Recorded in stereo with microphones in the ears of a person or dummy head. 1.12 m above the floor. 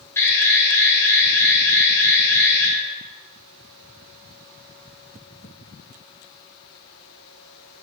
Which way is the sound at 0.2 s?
15° left (ahead or behind).